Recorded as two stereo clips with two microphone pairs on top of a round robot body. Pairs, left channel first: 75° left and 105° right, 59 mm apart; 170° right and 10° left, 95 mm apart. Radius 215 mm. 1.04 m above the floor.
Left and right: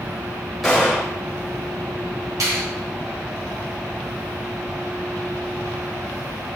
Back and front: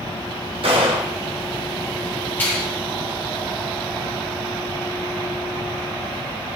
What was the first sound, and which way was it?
A gunshot, 10° right.